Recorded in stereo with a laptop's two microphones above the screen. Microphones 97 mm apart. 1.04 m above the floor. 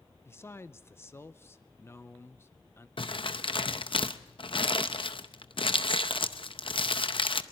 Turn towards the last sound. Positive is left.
turn(degrees=60)  # may be behind; listen again after turning